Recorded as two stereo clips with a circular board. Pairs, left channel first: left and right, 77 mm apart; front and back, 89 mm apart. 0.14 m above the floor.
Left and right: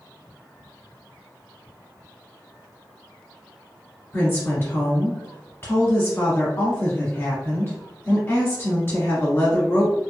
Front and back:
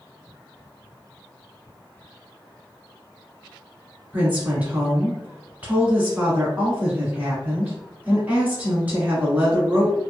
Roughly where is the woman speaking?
Behind left.